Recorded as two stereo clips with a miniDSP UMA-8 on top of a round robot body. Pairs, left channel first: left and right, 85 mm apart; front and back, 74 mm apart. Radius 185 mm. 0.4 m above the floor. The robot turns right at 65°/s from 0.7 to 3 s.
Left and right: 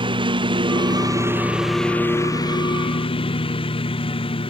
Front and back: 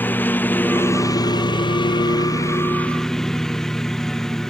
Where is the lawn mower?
65° right; by 4.5 s 85° left.